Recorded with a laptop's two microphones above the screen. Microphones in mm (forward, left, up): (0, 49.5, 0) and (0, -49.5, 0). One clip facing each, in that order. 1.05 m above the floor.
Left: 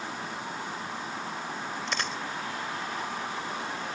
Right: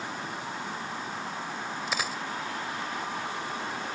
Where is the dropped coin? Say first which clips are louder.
Right 1 dB; 5° right (ahead or behind).